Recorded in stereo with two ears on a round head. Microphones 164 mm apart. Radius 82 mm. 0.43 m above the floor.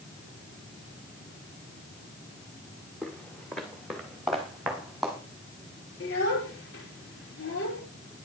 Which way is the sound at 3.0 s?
5° left (ahead or behind).